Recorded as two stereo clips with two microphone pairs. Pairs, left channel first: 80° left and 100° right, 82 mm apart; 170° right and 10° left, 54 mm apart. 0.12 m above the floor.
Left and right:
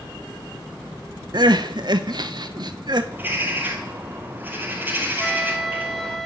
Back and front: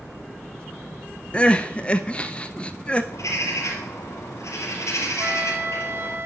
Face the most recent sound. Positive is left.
turn(degrees=0)